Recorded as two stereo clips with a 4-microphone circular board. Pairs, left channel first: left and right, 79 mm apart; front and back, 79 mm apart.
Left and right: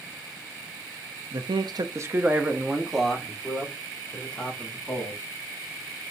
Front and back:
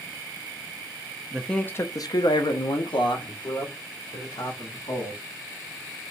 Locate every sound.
1.3 s a man speaking: 90° right, 0.5 m; by 5.2 s 20° left, 2.5 m